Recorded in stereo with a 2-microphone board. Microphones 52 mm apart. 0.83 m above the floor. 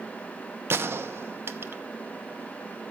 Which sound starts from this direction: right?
A gunshot, at 0.7 s.